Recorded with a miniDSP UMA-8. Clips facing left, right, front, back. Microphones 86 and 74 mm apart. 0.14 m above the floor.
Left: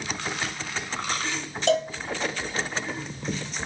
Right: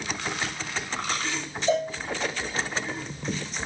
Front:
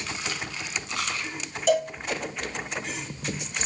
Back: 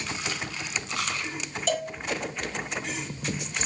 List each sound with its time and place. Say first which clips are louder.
1.7 s a cowbell: left 1 dB, front 6 dB; 85° left, 2 m